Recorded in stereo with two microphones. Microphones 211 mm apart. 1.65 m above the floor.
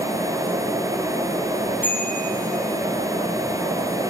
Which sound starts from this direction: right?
A bicycle bell, at 1.8 s.